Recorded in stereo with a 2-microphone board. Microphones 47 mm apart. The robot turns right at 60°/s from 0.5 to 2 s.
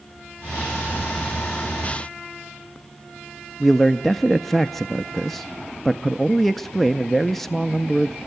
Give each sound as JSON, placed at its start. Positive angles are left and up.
{"t": 3.6, "sound": "a man speaking", "side_deg": 5, "distance_m": 0.5}